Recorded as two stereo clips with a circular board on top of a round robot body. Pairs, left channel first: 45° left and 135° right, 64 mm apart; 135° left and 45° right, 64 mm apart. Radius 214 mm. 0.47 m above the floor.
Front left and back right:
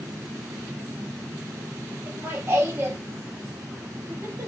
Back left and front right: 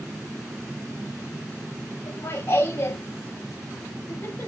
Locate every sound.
2.1 s laughter: 170° left, 1.4 m